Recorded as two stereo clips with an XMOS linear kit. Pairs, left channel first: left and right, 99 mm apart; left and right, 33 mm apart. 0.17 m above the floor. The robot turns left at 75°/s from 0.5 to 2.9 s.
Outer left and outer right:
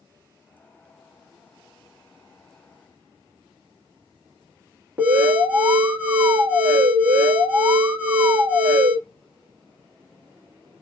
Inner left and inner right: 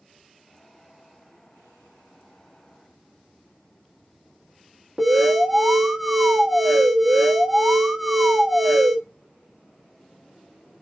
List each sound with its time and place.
5.0 s an alarm: 20° right (ahead or behind), 1.3 m